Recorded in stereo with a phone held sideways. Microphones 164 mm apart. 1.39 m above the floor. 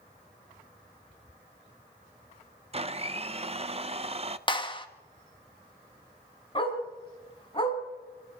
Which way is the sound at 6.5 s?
30° left (ahead or behind).